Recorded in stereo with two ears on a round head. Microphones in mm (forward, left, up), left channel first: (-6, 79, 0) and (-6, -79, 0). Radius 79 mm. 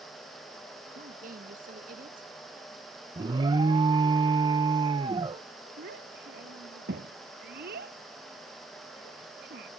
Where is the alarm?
25° right (ahead or behind).